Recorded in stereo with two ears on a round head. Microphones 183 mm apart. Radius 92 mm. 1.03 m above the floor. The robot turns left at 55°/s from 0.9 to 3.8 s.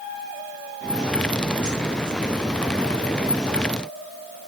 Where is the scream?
No scream in this recording.